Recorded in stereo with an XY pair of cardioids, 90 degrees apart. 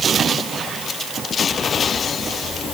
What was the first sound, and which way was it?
Only background noise.